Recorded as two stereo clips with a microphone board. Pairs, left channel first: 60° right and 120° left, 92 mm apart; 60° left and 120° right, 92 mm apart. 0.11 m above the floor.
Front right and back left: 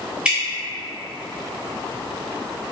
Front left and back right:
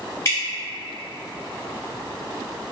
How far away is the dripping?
About 1.4 m.